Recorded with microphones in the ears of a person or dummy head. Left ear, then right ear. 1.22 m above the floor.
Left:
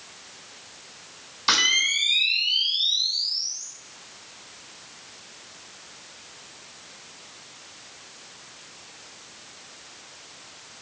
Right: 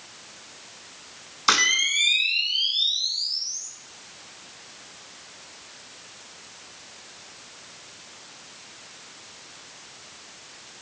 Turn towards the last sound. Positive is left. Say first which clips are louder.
# even
turn(degrees=-5)  # may be behind; listen again after turning